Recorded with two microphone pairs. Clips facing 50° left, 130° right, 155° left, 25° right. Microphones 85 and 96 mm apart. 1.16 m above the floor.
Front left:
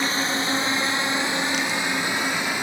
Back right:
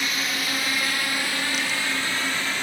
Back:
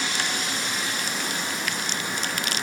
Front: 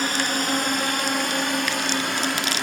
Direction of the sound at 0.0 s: Straight ahead.